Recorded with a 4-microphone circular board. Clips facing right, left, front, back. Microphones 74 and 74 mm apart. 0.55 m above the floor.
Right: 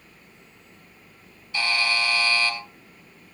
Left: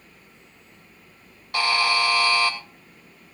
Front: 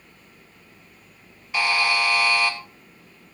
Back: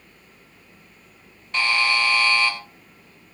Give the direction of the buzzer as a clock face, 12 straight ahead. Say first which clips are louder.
Left 4 dB, even; 9 o'clock.